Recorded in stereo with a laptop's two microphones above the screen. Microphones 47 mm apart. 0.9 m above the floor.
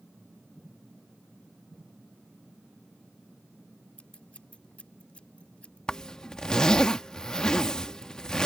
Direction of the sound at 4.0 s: 25° left (ahead or behind).